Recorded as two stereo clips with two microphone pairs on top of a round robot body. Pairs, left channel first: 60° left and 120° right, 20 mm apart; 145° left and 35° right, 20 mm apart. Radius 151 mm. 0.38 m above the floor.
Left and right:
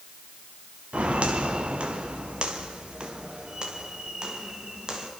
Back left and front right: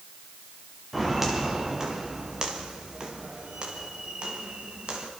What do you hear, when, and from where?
0.9 s footsteps: 110° right, 4 m; by 5.1 s 70° right, 7 m